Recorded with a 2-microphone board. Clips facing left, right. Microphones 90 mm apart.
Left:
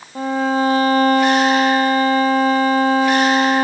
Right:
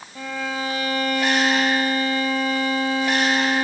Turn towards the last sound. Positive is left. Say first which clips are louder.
# left 10 dB
turn(degrees=40)  # may be behind; listen again after turning